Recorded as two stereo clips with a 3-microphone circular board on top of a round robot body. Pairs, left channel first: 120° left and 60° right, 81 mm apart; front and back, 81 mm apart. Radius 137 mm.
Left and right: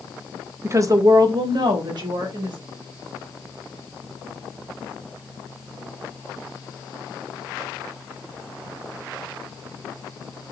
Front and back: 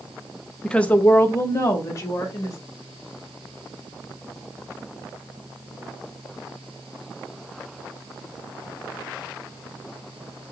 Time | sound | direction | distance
0.6 | a woman speaking | 80° right | 0.6 m